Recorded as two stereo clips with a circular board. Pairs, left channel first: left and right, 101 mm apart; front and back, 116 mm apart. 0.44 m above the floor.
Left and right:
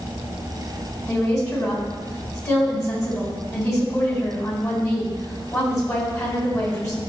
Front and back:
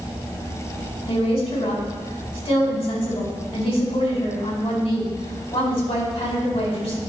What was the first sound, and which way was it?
A woman speaking, 30° left.